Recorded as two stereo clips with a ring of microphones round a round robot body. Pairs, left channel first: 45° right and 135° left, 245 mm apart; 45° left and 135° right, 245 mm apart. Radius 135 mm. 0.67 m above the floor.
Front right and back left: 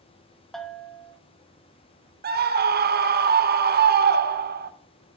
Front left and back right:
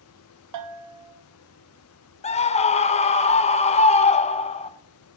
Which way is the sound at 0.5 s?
135° right.